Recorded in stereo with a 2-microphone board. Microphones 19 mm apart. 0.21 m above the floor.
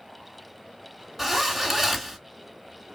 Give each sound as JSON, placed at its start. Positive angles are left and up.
{"t": 1.2, "sound": "a zipper", "side_deg": -5, "distance_m": 1.1}